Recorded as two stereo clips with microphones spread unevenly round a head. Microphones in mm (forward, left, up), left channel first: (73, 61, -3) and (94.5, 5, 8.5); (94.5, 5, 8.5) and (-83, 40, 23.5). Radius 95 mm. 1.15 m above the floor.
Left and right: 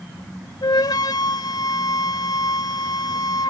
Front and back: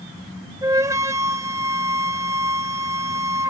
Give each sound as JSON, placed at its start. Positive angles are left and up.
{"t": 0.6, "sound": "a flute", "azimuth_deg": 95}